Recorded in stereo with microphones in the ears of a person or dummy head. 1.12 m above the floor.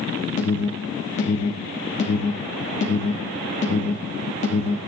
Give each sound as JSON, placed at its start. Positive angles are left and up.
{"t": 0.4, "sound": "an alarm", "side_deg": 40, "distance_m": 2.5}